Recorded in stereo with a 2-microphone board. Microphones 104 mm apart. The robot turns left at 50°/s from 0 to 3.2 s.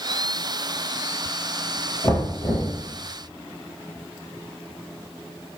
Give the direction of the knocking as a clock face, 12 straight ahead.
6 o'clock.